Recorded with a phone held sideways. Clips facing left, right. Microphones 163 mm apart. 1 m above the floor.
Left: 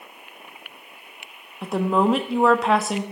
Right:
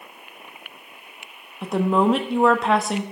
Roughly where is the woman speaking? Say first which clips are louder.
Right 1 dB; centre.